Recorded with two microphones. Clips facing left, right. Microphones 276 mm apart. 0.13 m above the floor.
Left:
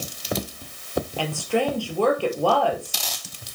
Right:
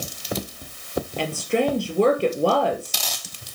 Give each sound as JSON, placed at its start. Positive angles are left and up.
{"t": 1.2, "sound": "a woman speaking", "side_deg": -20, "distance_m": 2.5}